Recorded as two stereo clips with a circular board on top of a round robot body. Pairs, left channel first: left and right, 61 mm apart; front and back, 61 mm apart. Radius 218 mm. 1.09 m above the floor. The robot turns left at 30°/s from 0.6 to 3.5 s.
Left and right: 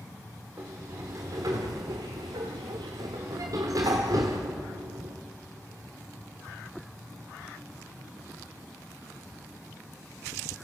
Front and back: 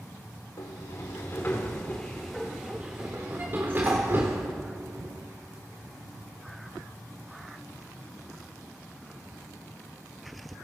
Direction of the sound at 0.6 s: 35° right.